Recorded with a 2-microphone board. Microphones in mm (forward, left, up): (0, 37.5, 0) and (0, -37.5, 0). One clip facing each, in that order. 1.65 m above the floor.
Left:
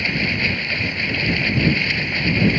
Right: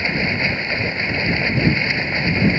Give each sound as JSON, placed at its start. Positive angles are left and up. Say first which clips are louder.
{"t": 0.0, "sound": "running water", "louder": "right 1 dB", "side_deg": -25}